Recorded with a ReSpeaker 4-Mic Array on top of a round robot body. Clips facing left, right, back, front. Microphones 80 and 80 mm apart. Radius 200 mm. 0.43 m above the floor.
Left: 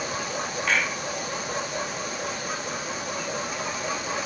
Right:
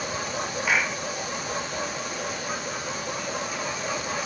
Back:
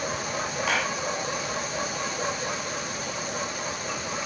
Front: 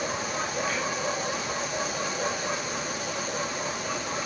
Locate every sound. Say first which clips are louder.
0.7 s a clap: right 1 dB, back 3 dB; 170° right